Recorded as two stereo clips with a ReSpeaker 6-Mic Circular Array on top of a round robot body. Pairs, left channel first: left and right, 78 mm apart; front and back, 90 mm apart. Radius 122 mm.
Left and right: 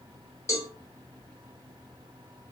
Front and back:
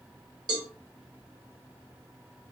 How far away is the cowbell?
About 1.2 m.